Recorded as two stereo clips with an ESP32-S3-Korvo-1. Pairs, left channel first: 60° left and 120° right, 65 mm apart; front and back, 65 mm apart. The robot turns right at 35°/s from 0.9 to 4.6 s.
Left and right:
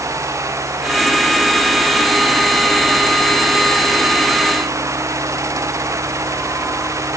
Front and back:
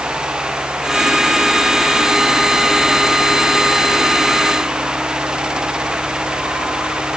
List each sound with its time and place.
Only background noise.